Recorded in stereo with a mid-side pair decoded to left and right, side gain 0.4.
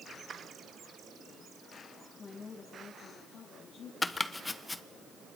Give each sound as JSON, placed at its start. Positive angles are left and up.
{"t": 2.2, "sound": "a woman speaking", "azimuth_deg": 40, "distance_m": 2.5}
{"t": 4.0, "sound": "chopping", "azimuth_deg": 20, "distance_m": 0.9}